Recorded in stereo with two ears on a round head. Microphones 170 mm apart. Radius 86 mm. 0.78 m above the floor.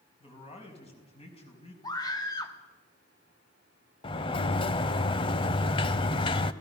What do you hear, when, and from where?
0.2 s a man speaking: 35° left (ahead or behind), 5 m
1.8 s a scream: 20° left (ahead or behind), 2.0 m
4.0 s a sliding door: 30° left (ahead or behind), 0.8 m